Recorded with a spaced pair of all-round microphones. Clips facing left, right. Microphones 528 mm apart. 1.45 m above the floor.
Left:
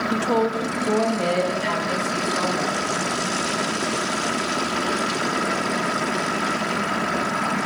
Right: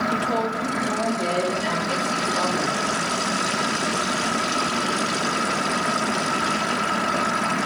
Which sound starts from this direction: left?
A woman speaking, at 0.1 s.